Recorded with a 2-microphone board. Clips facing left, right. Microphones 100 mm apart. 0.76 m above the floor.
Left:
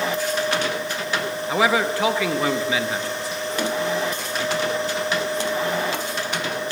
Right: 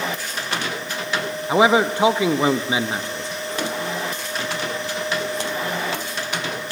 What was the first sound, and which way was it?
A man speaking, 25° right (ahead or behind).